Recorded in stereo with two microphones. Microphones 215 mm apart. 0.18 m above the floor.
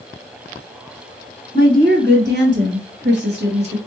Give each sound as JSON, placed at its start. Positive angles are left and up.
{"t": 1.5, "sound": "a woman speaking", "side_deg": -50, "distance_m": 2.0}